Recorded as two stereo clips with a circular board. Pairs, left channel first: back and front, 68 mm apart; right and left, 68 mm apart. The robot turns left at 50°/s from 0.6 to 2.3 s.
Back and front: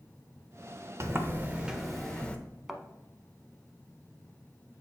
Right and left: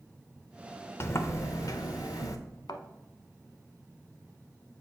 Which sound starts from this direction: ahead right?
A sliding door, at 1.0 s.